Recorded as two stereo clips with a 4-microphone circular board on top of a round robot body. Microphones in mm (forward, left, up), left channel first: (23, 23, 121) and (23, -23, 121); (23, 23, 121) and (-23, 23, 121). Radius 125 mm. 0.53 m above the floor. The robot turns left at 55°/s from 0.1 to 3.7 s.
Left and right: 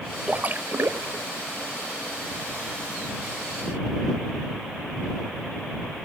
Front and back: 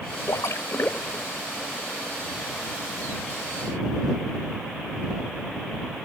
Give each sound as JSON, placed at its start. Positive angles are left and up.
{"t": 0.3, "sound": "a splash", "azimuth_deg": -20}